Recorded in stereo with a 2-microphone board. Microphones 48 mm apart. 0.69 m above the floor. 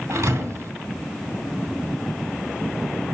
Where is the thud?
75° right (ahead or behind), 2.5 m.